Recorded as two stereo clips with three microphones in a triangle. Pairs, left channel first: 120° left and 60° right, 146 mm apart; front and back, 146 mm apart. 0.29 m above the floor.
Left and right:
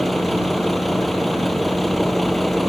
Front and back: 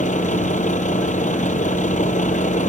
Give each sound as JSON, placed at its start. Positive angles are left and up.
{"t": 0.0, "sound": "a vehicle", "azimuth_deg": 30}